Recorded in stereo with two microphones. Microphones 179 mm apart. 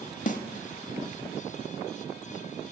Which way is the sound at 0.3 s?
50° left (ahead or behind).